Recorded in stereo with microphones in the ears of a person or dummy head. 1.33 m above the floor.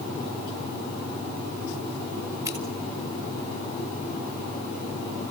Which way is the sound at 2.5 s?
15° right (ahead or behind).